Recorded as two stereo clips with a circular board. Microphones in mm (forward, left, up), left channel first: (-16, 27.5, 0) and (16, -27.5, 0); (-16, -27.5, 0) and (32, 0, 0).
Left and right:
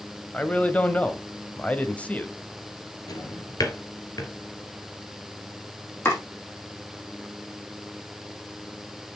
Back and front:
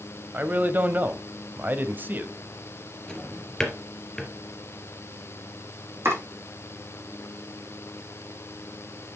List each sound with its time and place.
0.3 s a man speaking: 65° left, 1.2 m
3.1 s a drawer: 130° left, 2 m
6.0 s chopping: 70° left, 5 m